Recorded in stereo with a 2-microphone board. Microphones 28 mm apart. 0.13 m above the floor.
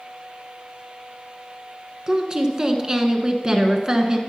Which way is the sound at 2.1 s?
30° right (ahead or behind).